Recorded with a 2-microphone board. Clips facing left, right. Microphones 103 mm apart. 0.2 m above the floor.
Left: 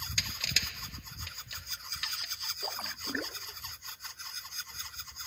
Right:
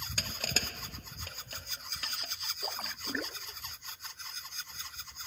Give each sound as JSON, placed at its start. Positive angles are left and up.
{"t": 0.2, "sound": "crushing", "side_deg": -40}
{"t": 2.6, "sound": "a splash", "side_deg": 0}